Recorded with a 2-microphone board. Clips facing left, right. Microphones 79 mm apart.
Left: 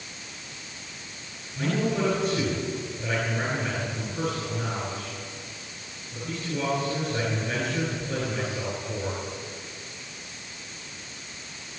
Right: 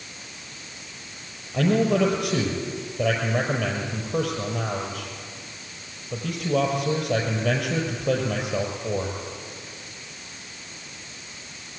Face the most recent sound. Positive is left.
turn(degrees=-60)  # may be behind; listen again after turning